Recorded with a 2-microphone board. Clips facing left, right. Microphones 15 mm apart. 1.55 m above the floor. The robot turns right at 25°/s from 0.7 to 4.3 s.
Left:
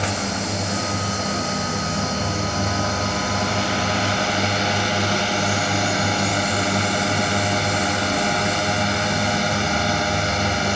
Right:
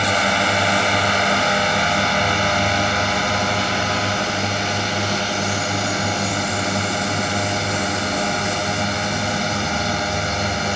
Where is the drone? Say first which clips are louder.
Right 7 dB; 90° right; by 10.8 s straight ahead.